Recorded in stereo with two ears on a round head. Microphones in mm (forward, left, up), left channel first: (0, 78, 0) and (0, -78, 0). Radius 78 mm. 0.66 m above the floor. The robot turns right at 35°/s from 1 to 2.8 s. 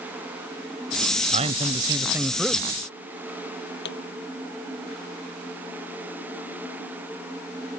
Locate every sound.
1.3 s a man speaking: 40° right; by 2.7 s 5° left
3.9 s a pop: 65° left (ahead or behind)